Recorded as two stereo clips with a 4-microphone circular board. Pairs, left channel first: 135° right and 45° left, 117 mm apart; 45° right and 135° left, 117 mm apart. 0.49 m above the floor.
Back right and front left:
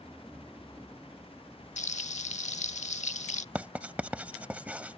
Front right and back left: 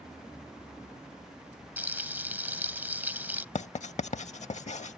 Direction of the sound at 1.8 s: 150° right.